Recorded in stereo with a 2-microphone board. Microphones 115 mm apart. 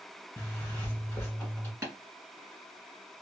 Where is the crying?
No crying in this recording.